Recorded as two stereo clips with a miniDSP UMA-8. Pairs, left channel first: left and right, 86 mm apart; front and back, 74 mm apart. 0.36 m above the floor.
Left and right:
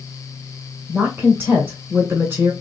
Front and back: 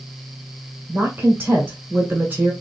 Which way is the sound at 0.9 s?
135° right.